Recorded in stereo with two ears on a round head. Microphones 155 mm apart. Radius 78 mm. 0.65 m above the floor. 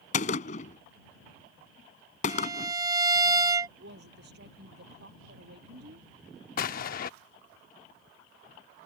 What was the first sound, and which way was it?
A gunshot, 45° left (ahead or behind).